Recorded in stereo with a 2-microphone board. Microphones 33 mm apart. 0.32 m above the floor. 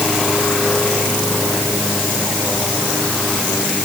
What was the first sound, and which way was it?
Only background noise.